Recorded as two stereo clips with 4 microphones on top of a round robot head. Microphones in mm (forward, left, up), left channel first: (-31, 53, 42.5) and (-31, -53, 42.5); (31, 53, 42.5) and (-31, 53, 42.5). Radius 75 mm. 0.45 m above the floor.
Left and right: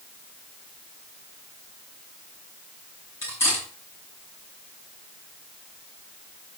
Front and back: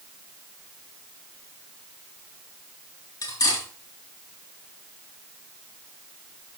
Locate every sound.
3.2 s cutlery clinking: 15° left, 5 m